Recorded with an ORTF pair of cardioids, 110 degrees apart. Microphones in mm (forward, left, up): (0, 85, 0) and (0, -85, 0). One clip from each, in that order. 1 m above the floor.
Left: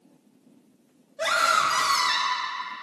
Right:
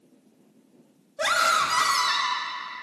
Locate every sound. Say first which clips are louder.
1.2 s a scream: even; 25° right, 1.7 m; by 2.5 s 10° left, 1.4 m